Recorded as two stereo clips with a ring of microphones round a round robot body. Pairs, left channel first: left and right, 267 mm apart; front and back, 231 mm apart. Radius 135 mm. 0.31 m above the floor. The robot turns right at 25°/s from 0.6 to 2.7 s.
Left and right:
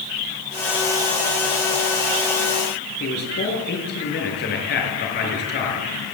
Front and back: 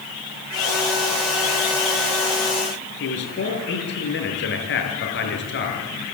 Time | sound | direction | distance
3.0 | a man speaking | 40° left | 6 m